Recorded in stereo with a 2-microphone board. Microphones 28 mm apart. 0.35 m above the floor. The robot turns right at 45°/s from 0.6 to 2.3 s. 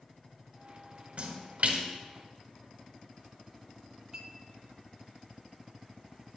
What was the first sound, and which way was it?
A splash, 55° right (ahead or behind).